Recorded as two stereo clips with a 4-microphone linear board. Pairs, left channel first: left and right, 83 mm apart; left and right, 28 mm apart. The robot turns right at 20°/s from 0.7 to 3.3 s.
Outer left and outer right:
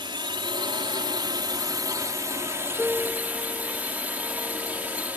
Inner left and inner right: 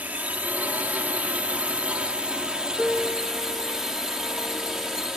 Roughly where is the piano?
Centre.